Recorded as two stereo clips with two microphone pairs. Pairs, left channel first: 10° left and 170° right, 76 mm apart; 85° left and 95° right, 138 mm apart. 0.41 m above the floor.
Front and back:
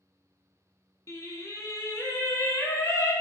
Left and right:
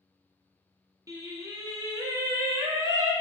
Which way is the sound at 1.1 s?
30° right.